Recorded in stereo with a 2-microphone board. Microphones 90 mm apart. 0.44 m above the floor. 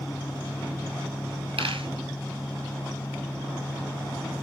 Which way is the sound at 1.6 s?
80° right.